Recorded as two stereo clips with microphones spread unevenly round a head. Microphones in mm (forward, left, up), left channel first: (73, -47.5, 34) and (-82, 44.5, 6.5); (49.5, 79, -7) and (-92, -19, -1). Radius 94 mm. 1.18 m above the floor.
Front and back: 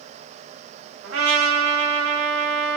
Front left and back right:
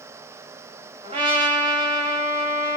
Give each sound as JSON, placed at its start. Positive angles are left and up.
{"t": 1.0, "sound": "a trumpet", "azimuth_deg": 160, "distance_m": 1.2}